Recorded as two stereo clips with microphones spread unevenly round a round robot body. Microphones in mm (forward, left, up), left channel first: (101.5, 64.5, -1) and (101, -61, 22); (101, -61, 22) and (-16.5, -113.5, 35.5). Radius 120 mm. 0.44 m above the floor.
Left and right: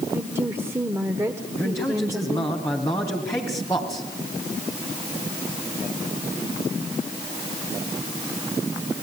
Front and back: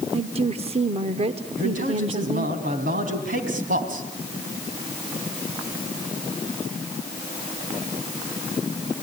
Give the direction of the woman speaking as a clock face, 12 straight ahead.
6 o'clock.